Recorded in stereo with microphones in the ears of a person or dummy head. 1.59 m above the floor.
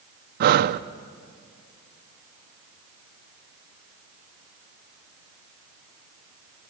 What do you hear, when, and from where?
0.4 s breathing: 55° right (ahead or behind), 0.6 m